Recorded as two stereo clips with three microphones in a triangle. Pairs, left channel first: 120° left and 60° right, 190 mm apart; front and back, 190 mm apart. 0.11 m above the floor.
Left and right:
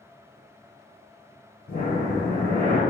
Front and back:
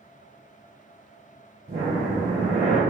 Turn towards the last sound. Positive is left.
turn(degrees=135)